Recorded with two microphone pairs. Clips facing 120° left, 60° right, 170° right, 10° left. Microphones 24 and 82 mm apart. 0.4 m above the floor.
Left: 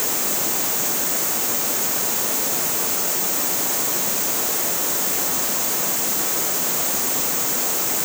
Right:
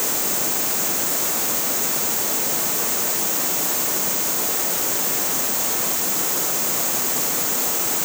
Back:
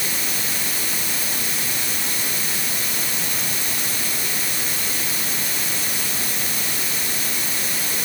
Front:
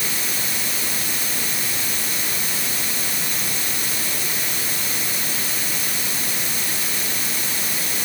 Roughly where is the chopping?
I don't hear chopping.